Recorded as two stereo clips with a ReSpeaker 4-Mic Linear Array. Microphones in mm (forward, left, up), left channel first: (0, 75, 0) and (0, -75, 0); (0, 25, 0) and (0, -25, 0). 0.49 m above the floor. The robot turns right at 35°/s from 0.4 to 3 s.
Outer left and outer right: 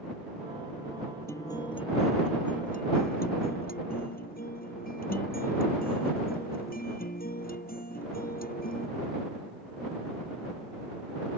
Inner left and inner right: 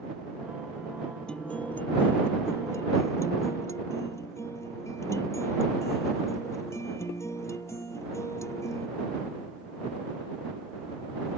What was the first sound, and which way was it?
A guitar, 15° left.